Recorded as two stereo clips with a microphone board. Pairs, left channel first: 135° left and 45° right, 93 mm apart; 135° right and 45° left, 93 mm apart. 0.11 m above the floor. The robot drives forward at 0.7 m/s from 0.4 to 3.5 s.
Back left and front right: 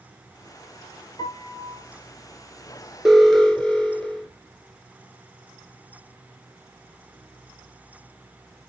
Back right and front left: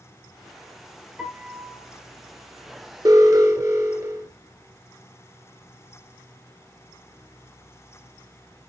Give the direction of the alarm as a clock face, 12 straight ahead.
11 o'clock.